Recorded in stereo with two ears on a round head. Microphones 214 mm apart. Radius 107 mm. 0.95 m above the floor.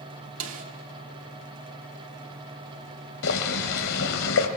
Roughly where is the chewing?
No chewing in this recording.